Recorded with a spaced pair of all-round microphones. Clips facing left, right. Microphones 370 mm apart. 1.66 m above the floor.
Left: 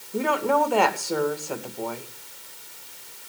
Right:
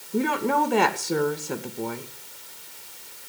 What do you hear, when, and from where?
0.1 s a woman speaking: 30° right (ahead or behind), 2 m